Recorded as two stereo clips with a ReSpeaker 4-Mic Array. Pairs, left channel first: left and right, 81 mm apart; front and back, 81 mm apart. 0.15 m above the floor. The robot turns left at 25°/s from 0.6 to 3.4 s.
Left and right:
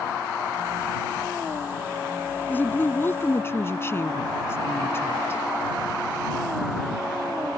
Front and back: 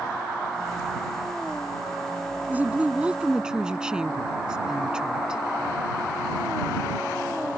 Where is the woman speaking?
135° left; by 5.4 s 110° left.